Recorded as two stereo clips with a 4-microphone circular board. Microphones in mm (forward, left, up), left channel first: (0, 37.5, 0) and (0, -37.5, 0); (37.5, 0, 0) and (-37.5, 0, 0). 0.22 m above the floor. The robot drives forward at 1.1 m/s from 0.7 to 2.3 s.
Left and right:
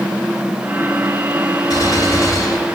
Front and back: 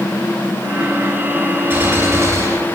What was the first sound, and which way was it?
A gunshot, 120° left.